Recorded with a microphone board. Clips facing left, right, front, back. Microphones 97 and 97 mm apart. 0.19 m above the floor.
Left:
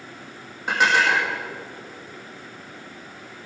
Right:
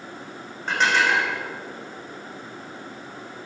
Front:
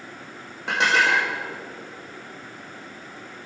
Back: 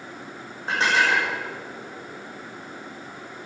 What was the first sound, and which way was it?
Dishes clattering, 5° left.